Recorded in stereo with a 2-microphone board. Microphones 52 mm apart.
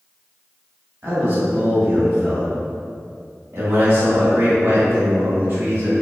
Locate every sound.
1.0 s a man speaking: 35° right (ahead or behind), 1.1 m